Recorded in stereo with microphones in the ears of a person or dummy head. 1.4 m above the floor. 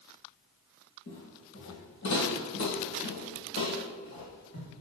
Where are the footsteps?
50° left (ahead or behind), 2 m.